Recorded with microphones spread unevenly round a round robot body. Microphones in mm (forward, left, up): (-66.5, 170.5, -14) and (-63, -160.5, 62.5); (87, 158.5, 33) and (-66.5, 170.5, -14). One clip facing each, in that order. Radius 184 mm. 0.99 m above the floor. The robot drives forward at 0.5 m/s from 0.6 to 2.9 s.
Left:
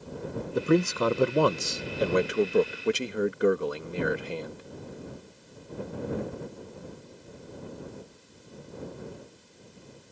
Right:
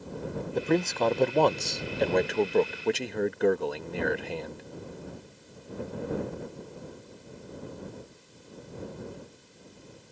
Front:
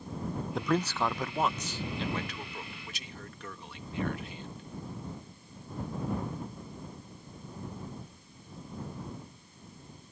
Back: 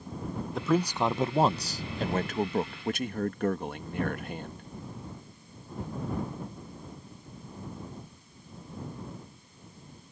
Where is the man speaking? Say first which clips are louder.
Left 3 dB, back 3 dB; 120° left; by 4.6 s 170° left.